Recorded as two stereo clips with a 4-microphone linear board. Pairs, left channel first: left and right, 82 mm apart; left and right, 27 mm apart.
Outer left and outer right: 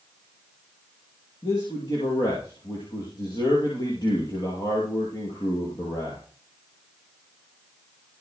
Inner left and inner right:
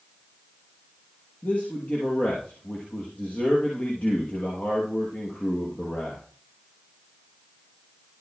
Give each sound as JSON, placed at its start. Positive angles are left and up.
{"t": 1.4, "sound": "a man speaking", "side_deg": 60, "distance_m": 6.0}